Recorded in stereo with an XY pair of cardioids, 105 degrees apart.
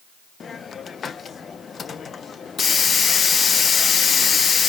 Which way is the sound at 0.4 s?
45° left.